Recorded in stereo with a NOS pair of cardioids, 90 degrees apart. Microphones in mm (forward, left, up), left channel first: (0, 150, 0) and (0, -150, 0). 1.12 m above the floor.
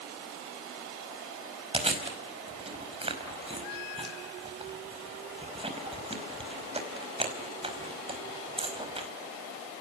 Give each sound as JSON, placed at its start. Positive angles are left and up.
{"t": 1.7, "sound": "chewing", "azimuth_deg": -20, "distance_m": 4.5}